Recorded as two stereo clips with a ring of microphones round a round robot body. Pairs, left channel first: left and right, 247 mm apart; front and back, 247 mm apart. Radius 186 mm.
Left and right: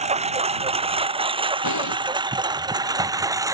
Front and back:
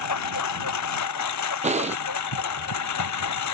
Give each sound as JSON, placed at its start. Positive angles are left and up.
{"t": 0.0, "sound": "a lawn mower", "azimuth_deg": -25}
{"t": 1.6, "sound": "breathing", "azimuth_deg": 115}